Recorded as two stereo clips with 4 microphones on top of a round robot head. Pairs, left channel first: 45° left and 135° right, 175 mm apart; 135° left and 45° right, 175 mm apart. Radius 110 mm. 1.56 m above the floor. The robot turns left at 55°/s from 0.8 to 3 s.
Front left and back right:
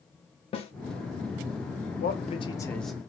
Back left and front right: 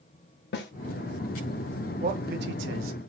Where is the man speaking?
5° left, 0.6 m; by 3.0 s 50° right, 0.6 m.